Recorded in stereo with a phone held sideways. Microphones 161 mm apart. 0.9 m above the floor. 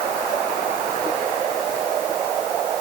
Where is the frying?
I don't hear frying.